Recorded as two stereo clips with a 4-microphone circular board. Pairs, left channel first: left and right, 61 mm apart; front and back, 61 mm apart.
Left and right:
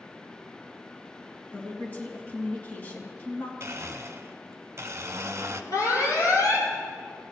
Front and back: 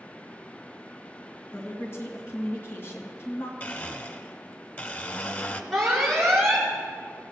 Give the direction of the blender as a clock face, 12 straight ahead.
2 o'clock.